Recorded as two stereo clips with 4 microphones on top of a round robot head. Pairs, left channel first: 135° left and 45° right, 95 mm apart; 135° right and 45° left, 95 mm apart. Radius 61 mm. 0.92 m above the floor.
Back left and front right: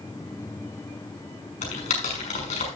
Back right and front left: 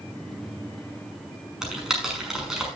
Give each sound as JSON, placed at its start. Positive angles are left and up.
{"t": 1.6, "sound": "typing on a keyboard", "azimuth_deg": 125, "distance_m": 6.0}